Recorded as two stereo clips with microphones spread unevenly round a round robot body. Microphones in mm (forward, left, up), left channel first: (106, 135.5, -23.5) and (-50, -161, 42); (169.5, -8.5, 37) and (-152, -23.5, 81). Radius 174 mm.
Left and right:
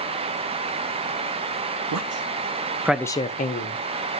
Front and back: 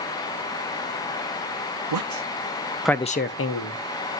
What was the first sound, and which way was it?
A man speaking, 165° right.